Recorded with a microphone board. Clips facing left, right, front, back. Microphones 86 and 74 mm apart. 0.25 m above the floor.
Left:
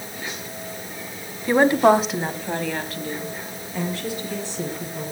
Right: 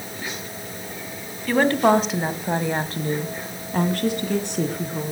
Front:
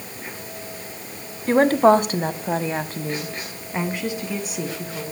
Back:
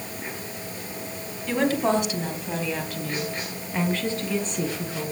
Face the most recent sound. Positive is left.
turn(degrees=-85)